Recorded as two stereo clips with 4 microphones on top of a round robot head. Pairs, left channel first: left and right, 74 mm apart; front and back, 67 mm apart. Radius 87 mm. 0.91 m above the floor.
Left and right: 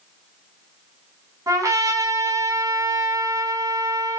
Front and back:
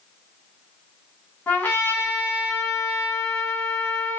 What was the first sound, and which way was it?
A trumpet, 65° right.